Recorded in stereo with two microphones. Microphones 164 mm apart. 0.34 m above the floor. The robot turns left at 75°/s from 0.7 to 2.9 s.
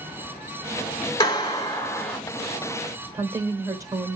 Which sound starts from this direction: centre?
A woman speaking, at 3.1 s.